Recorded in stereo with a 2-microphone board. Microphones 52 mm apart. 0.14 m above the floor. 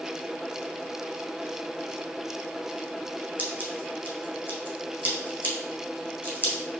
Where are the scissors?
35° right (ahead or behind), 1.3 m.